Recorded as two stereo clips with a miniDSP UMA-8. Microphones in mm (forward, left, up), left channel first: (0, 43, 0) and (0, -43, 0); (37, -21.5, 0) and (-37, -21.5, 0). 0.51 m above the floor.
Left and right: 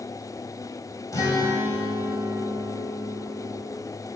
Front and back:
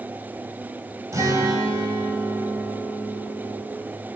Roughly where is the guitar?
Behind left.